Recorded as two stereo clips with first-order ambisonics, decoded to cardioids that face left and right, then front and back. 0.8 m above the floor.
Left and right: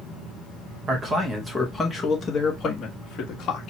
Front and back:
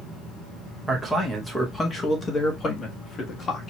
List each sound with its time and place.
0.9 s a man speaking: 105° right, 1.1 m; by 3.7 s 55° left, 1.7 m